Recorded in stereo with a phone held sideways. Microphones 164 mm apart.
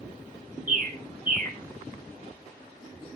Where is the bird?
55° right (ahead or behind), 1.0 m.